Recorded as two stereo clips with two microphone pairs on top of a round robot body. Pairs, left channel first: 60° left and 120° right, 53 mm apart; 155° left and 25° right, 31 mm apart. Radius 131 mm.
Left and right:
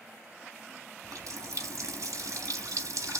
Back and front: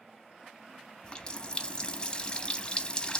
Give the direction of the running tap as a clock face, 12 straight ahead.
5 o'clock.